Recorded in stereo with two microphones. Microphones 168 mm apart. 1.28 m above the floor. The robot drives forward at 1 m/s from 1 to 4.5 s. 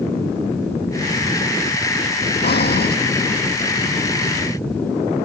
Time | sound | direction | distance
2.4 | breathing | 80° left | ?